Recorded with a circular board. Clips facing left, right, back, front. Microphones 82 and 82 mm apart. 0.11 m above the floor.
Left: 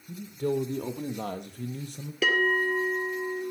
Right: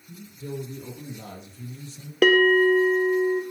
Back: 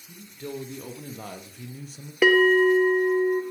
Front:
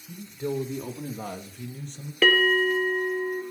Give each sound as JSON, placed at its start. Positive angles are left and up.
{"t": 0.1, "sound": "a man speaking", "azimuth_deg": 70, "distance_m": 3.5}
{"t": 2.2, "sound": "a bell", "azimuth_deg": -105, "distance_m": 1.7}